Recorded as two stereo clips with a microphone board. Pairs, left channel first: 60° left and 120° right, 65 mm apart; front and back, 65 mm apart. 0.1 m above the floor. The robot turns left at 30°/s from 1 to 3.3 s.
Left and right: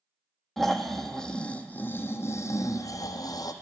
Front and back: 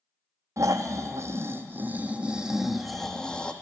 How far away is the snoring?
About 0.7 m.